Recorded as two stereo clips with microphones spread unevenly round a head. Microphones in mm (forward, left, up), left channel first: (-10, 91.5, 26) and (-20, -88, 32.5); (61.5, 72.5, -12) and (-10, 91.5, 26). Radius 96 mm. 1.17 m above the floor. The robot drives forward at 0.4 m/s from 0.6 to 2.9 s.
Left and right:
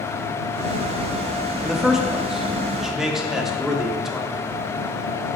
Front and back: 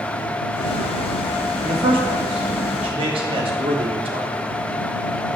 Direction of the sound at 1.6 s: Straight behind.